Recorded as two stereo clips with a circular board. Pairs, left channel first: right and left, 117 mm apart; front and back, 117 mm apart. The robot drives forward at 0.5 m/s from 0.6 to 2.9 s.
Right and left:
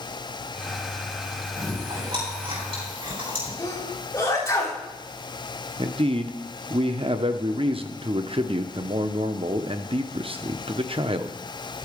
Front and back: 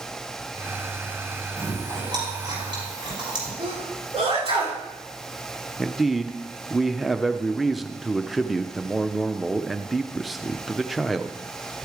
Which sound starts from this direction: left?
A man speaking, at 5.8 s.